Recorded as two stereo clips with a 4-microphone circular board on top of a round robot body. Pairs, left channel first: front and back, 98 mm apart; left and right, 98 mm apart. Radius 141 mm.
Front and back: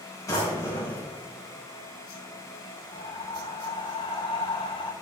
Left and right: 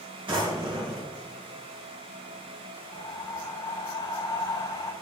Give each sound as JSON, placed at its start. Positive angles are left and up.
{"t": 0.3, "sound": "a drawer", "azimuth_deg": -55, "distance_m": 3.0}
{"t": 2.9, "sound": "breathing", "azimuth_deg": 35, "distance_m": 0.7}